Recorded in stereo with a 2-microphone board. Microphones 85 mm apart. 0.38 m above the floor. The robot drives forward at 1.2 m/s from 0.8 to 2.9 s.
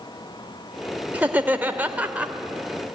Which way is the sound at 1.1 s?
20° right (ahead or behind).